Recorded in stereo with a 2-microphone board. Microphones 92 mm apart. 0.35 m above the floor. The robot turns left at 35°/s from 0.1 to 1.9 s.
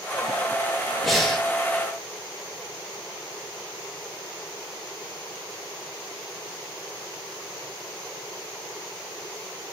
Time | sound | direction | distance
1.0 | breathing | centre (ahead or behind) | 1.0 m